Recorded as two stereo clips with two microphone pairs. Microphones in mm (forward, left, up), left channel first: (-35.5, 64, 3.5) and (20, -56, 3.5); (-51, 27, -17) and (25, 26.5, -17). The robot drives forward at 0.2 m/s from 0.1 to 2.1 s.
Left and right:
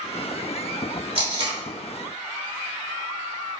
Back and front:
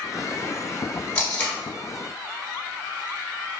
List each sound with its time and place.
1.1 s tape being pulled: 110° right, 1.1 m; by 1.6 s 115° right, 1.1 m